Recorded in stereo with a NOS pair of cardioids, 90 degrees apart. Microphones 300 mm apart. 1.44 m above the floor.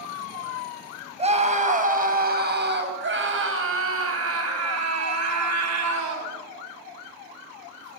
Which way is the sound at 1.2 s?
20° right.